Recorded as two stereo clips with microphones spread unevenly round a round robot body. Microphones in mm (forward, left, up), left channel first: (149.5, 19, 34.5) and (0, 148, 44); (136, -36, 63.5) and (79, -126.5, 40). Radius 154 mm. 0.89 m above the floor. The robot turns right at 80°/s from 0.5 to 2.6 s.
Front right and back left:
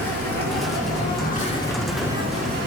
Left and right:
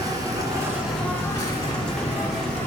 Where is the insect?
60° right, 2.5 m; by 2.7 s 105° left, 2.5 m.